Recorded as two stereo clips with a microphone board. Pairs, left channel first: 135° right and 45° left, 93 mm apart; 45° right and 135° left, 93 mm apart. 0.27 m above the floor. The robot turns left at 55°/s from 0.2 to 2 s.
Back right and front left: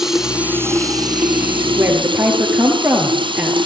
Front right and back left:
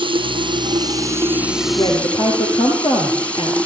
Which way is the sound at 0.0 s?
130° left.